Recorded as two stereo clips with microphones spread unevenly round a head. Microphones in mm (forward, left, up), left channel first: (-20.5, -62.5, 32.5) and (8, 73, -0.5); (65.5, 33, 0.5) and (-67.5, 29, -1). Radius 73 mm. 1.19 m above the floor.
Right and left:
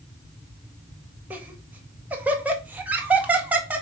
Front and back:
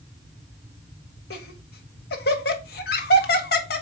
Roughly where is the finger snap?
I don't hear a finger snap.